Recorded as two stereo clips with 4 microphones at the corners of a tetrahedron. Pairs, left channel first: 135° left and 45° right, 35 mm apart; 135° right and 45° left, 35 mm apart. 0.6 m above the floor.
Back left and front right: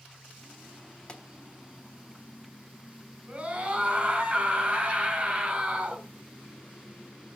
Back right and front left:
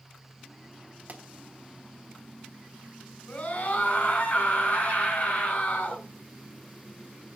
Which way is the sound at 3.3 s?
95° right.